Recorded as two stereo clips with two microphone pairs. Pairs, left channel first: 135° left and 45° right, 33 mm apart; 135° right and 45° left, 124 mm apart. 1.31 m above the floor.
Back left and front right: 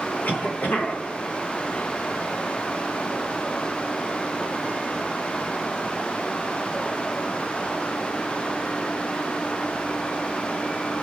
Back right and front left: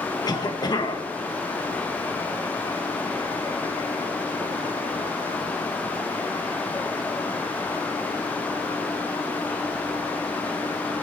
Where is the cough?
165° left, 1.2 m.